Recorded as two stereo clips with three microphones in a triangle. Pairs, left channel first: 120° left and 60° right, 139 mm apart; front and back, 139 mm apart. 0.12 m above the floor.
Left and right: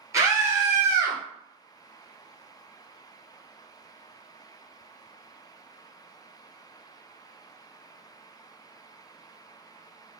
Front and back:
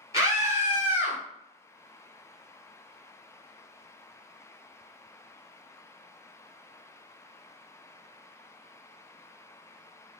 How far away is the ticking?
No ticking in this recording.